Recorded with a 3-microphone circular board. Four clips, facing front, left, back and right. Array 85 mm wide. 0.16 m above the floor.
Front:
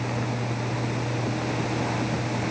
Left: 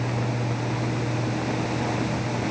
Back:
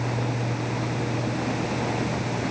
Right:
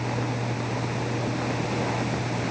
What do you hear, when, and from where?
Only background noise.